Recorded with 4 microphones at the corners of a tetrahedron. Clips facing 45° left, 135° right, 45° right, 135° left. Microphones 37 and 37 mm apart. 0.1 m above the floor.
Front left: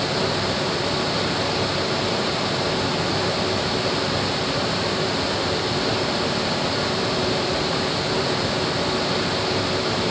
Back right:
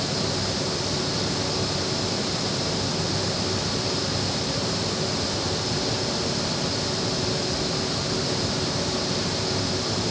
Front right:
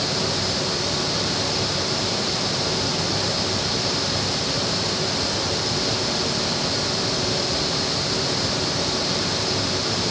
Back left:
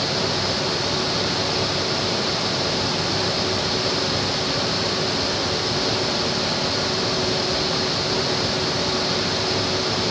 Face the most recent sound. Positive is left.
No sound to turn to.